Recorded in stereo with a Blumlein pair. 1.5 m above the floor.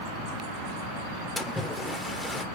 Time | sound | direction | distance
1.4 | a splash | 10° left | 0.5 m